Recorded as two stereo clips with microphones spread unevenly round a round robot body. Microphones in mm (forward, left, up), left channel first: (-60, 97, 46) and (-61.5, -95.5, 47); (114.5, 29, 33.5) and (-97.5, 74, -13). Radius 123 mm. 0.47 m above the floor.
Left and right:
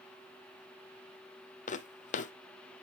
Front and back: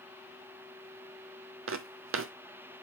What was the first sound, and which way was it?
Footsteps, 140° left.